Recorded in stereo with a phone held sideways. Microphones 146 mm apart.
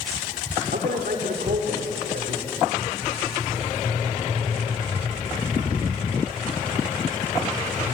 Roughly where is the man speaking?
Right.